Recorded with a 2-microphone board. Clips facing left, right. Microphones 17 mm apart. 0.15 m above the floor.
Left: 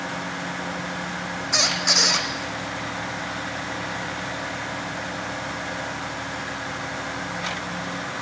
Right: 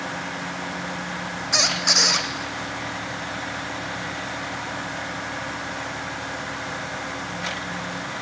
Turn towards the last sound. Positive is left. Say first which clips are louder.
# right 1 dB
turn(degrees=-10)  # may be behind; listen again after turning